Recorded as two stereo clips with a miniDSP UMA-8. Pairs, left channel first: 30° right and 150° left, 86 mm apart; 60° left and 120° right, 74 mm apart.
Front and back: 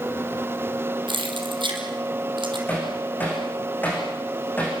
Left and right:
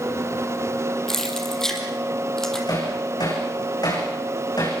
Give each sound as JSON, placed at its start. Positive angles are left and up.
{"t": 1.1, "sound": "keys jangling", "azimuth_deg": 140, "distance_m": 4.0}
{"t": 2.7, "sound": "hammering", "azimuth_deg": 40, "distance_m": 10.0}